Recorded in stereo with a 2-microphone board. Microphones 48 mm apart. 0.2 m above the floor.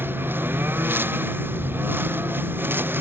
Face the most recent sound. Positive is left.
turn(degrees=-50)  # may be behind; listen again after turning